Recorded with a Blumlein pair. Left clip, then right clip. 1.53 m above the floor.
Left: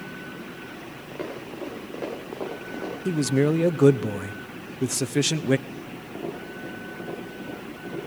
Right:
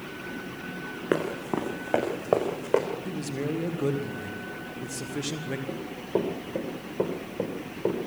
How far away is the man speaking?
About 0.9 m.